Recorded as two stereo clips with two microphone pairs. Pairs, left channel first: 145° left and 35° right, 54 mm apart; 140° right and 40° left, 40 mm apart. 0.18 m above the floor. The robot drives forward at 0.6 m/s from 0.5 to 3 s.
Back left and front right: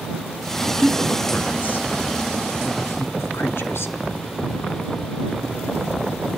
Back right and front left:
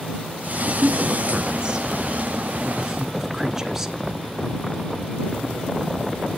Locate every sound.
0.8 s a woman speaking: 85° left, 2.5 m; by 3.9 s 120° left, 2.5 m